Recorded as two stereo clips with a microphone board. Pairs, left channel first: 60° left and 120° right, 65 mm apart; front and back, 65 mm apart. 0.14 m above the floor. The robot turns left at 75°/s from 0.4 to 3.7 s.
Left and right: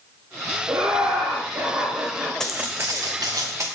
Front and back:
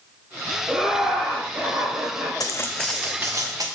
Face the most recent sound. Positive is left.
turn(degrees=-170)